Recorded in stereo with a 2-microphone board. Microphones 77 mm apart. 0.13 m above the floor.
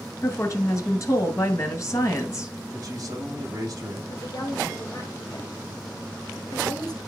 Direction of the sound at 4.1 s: 55° left (ahead or behind).